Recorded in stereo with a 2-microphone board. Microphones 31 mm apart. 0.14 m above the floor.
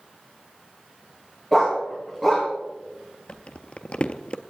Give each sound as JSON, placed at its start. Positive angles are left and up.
{"t": 1.5, "sound": "a dog barking", "side_deg": -5, "distance_m": 3.0}
{"t": 3.3, "sound": "crumpling", "side_deg": 40, "distance_m": 0.6}